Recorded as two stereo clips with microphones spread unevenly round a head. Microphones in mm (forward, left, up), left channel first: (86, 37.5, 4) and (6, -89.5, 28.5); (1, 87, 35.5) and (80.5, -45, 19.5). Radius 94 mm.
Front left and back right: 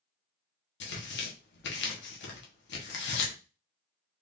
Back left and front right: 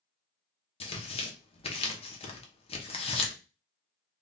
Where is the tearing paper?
65° left, 1.0 m.